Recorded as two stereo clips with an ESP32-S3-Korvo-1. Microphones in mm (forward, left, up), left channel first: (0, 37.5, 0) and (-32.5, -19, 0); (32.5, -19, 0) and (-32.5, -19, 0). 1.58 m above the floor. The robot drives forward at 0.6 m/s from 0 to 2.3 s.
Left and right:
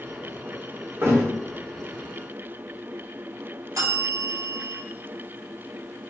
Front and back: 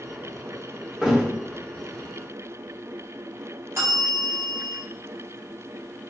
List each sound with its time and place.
1.0 s a thud: 105° right, 1.5 m; by 1.2 s 110° right, 1.5 m
3.8 s a bell: 145° right, 2.5 m